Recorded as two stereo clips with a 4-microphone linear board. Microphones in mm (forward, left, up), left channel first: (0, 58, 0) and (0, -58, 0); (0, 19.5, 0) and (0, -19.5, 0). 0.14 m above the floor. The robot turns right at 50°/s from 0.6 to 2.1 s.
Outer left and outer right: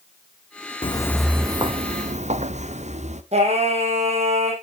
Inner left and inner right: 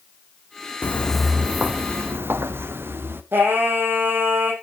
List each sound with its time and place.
0.8 s footsteps: 55° left (ahead or behind), 0.5 m; by 3.2 s 85° right, 1.9 m
3.3 s singing: 70° right (ahead or behind), 4.5 m